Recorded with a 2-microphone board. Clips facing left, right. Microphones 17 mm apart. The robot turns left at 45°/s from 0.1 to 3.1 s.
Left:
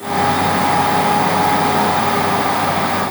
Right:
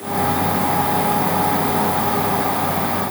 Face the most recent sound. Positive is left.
No sound to turn to.